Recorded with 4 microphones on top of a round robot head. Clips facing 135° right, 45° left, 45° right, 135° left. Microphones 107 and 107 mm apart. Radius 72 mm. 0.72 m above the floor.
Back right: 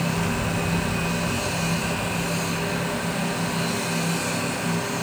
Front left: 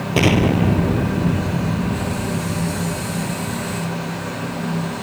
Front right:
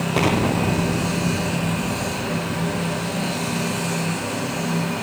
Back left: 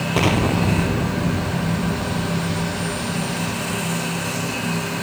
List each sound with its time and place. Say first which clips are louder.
0.2 s an explosion: front left 10 dB, back left 1 dB; 45° left